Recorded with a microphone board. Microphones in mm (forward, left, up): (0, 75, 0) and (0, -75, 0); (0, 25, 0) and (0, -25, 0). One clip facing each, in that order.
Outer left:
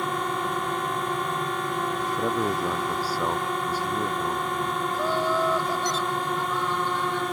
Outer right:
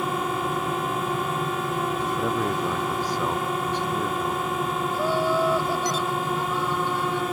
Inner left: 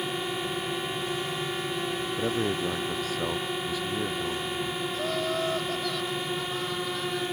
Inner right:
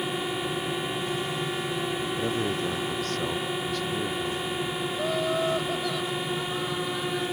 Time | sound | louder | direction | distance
0.0 | a drone | outer right 2 dB, inner right 1 dB | 5° right (ahead or behind) | ?
2.2 | a man speaking | outer left 1 dB, inner left 2 dB | 10° left (ahead or behind) | ?
4.9 | laughter | outer right 2 dB, inner right 3 dB | 10° right (ahead or behind) | ?